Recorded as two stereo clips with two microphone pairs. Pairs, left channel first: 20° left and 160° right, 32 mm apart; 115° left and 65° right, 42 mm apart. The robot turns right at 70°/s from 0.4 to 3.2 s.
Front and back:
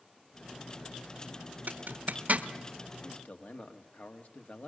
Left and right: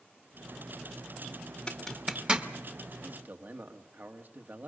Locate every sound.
1.7 s a zipper: 175° right, 1.1 m; by 2.5 s 120° right, 1.1 m
3.0 s a man speaking: 30° right, 1.7 m; by 4.7 s 20° right, 1.7 m